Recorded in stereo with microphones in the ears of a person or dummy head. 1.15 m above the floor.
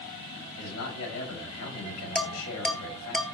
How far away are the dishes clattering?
About 0.7 m.